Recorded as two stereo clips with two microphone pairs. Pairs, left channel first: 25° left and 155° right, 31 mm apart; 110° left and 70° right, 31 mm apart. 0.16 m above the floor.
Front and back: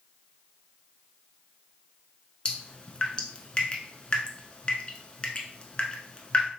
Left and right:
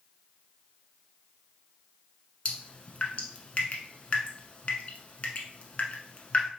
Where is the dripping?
75° left, 0.6 m.